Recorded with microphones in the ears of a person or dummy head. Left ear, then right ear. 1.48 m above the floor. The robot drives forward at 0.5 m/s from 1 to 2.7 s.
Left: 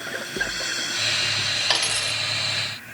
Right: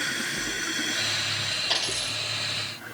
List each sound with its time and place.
1.7 s a dropped coin: 25° left (ahead or behind), 1.0 m